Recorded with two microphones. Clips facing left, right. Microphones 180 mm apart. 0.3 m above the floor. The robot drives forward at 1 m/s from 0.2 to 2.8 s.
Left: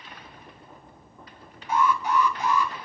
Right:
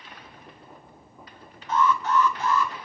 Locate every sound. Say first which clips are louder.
1.7 s an alarm: right 1 dB; 10° left (ahead or behind), 3 m; by 2.7 s 15° left (ahead or behind), 2 m